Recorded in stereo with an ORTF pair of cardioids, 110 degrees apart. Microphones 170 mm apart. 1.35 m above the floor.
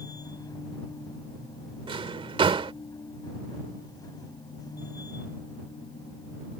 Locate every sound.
0.0 s a machine running: 20° left
1.9 s a drawer: 30° right